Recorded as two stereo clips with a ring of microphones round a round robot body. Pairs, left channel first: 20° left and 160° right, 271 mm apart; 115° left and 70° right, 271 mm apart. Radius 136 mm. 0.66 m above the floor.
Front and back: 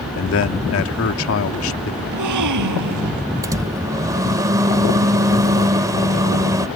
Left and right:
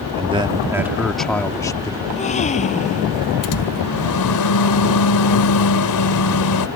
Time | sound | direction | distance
0.1 | a man speaking | 5° right | ?
2.0 | a gasp | straight behind | ?
3.4 | a microwave | 125° left | ?